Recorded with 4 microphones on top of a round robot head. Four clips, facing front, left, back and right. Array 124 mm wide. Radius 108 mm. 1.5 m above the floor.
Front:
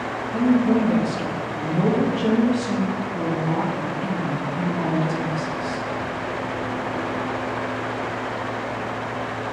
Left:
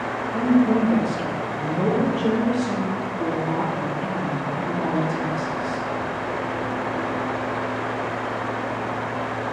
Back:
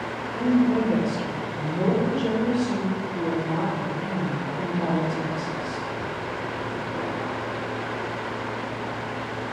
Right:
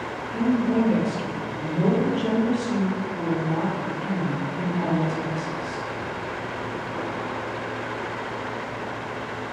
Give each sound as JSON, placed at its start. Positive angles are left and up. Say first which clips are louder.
{"t": 0.3, "sound": "a woman speaking", "louder": "left 3 dB, front 2 dB", "azimuth_deg": 5, "distance_m": 2.0}